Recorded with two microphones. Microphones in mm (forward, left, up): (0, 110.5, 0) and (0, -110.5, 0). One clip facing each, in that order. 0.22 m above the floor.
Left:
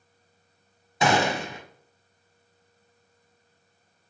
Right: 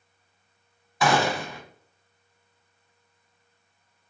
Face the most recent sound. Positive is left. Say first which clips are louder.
# even
turn(degrees=25)  # may be behind; listen again after turning